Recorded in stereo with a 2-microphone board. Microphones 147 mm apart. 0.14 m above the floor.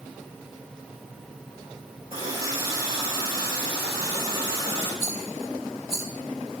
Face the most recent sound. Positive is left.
turn(degrees=-5)  # may be behind; listen again after turning